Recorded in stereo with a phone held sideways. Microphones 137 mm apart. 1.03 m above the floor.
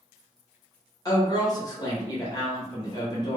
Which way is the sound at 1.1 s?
25° left (ahead or behind).